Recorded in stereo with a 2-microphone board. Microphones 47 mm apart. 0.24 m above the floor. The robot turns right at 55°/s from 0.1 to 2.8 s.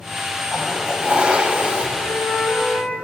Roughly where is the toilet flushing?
Centre.